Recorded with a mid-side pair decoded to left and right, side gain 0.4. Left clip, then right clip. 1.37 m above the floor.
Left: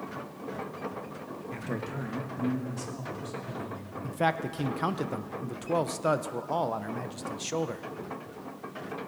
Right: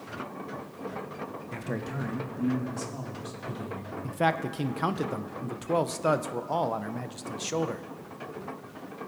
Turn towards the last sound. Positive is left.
turn(degrees=-10)